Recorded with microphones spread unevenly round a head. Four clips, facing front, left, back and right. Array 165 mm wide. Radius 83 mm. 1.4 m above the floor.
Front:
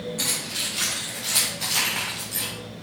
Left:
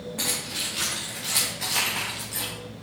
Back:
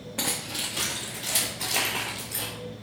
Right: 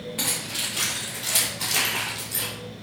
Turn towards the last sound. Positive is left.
turn(degrees=-150)